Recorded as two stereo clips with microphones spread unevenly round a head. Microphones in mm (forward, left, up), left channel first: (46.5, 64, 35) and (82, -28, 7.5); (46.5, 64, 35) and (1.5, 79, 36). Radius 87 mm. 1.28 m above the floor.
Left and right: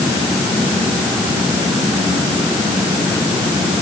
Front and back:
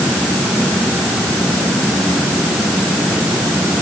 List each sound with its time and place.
Only background noise.